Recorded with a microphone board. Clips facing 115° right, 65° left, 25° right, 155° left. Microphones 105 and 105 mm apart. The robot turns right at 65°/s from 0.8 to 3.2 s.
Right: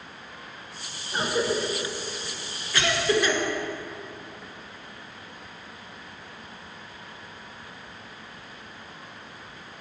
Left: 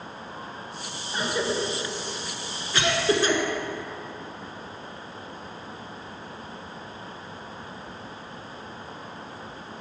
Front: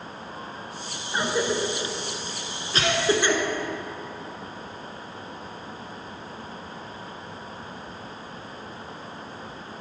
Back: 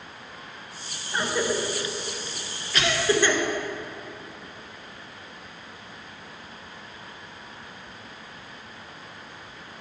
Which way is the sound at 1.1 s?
100° right.